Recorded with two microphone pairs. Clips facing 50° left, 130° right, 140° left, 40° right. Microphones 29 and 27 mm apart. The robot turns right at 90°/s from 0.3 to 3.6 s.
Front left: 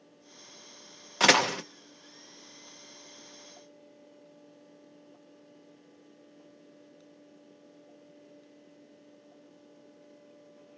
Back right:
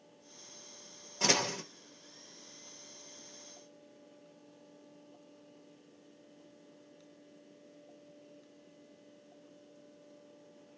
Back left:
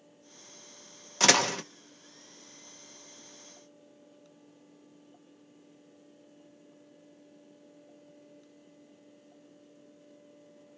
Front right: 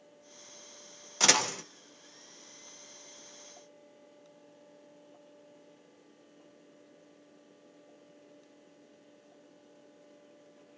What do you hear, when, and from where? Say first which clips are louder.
1.2 s a door slam: front left 9 dB, back left 3 dB; 50° left, 0.6 m; by 1.6 s 90° left, 0.6 m